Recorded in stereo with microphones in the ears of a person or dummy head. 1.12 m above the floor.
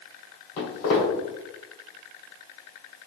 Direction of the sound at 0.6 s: 45° left (ahead or behind).